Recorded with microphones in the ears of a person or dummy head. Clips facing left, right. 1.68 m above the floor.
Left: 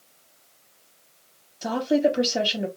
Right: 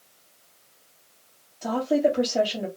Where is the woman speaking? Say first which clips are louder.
Left 1 dB; 15° left (ahead or behind), 1.0 m.